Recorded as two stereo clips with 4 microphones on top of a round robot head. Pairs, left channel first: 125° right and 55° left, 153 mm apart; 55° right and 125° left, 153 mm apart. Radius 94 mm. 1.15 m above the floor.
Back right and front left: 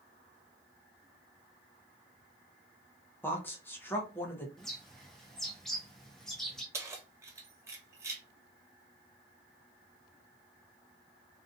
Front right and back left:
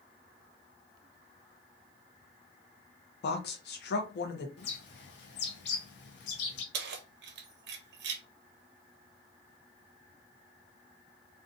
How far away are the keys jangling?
About 0.5 m.